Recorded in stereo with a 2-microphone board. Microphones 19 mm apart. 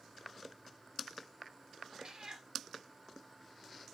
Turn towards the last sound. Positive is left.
turn(degrees=-45)  # may be behind; listen again after turning